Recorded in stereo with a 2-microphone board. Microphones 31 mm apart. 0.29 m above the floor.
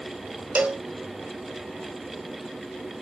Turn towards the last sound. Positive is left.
turn(degrees=-45)  # may be behind; listen again after turning